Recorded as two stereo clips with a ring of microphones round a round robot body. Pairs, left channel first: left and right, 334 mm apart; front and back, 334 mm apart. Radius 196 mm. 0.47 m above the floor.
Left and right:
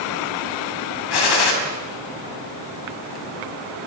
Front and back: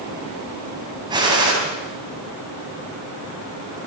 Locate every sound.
1.1 s a gunshot: 100° left, 3.5 m